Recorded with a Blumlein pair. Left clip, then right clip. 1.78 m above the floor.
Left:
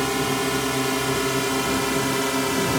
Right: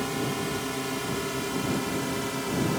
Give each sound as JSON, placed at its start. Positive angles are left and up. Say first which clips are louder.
{"t": 0.0, "sound": "a drone", "louder": "left 7 dB", "azimuth_deg": 25}